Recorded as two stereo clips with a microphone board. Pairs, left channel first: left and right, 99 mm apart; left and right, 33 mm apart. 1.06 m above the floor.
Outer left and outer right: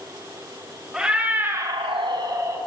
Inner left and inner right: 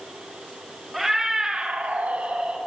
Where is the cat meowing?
5° right (ahead or behind), 1.5 m; by 2.6 s 30° right (ahead or behind), 1.4 m.